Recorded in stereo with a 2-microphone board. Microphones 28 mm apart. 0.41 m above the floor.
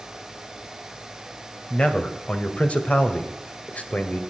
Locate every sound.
1.7 s a man speaking: 40° left (ahead or behind), 2 m; by 4.2 s 55° left (ahead or behind), 1.8 m